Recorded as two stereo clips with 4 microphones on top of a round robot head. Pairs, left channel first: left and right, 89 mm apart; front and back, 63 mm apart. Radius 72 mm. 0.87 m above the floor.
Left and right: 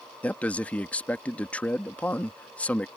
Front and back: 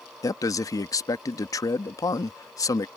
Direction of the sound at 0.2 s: 15° left.